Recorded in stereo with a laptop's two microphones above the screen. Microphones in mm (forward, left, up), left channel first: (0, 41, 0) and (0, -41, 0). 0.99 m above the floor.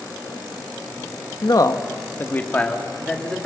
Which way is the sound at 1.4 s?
60° left (ahead or behind).